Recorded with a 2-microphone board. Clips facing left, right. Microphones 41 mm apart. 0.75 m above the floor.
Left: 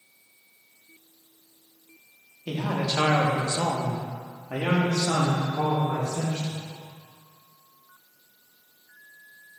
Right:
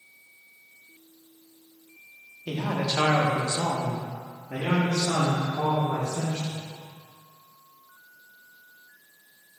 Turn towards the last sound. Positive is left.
turn(degrees=60)  # may be behind; listen again after turning